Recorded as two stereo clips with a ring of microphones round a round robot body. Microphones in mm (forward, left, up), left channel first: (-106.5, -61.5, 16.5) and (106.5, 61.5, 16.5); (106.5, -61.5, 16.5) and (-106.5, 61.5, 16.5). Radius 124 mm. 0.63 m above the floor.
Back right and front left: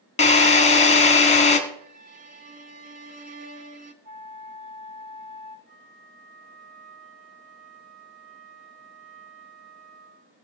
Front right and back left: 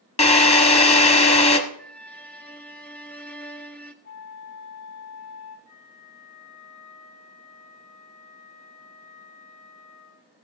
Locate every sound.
0.2 s a drill: 90° right, 1.3 m
1.8 s a violin: 50° left, 1.2 m
4.0 s a flute: 15° left, 4 m
5.7 s a flute: 25° right, 1.5 m